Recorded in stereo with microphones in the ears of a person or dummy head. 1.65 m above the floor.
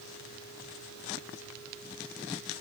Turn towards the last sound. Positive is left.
No sound to turn to.